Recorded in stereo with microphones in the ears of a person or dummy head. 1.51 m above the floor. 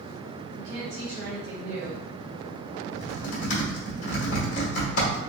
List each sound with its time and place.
0.6 s a woman speaking: 65° right (ahead or behind), 0.7 m
2.9 s typing on a keyboard: 45° left (ahead or behind), 1.5 m